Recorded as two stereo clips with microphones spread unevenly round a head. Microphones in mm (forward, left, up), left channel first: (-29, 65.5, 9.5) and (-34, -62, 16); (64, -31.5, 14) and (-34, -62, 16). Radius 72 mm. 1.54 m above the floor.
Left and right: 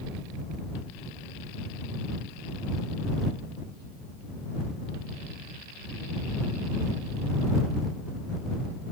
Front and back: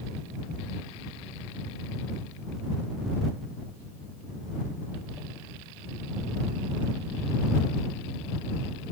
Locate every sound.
Only background noise.